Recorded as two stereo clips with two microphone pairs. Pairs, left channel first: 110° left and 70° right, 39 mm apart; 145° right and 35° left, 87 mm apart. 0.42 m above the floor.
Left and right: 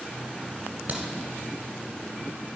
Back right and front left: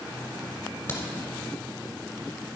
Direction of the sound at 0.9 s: 80° right.